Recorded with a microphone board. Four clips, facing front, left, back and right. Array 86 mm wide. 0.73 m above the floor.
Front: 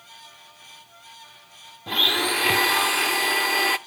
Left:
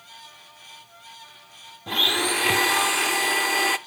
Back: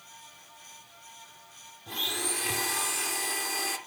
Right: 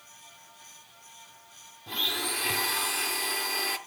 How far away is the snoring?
I don't hear snoring.